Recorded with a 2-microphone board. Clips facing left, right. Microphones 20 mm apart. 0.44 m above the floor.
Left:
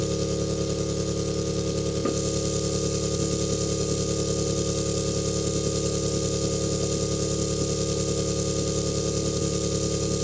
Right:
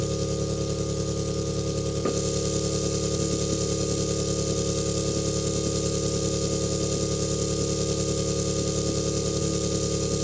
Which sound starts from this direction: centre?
An engine running, at 0.0 s.